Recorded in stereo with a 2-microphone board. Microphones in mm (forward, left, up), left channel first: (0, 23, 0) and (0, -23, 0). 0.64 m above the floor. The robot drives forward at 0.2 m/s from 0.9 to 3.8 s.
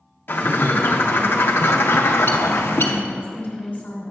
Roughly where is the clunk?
I don't hear a clunk.